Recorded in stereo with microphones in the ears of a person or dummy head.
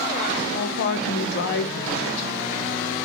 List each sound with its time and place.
0.5 s a woman speaking: 70° left (ahead or behind), 0.6 m